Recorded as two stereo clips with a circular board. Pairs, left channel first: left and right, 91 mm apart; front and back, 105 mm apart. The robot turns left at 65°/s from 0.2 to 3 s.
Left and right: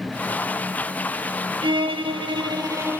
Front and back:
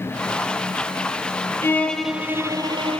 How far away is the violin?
About 0.7 m.